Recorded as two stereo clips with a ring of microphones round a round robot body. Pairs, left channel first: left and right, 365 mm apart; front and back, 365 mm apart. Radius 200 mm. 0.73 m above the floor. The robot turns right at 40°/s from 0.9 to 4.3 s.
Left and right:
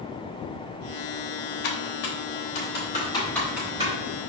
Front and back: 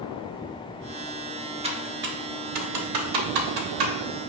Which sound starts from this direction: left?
Typing on a keyboard, at 1.6 s.